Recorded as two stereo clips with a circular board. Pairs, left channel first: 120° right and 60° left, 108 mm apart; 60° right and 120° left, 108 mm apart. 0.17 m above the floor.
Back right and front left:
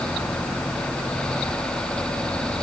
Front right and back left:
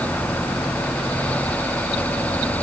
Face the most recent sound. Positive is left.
No sound to turn to.